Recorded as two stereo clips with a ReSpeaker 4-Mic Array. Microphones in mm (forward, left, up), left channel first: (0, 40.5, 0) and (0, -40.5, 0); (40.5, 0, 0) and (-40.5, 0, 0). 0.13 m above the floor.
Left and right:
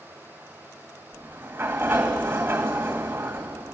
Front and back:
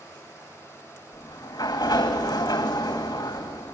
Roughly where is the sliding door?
Ahead right.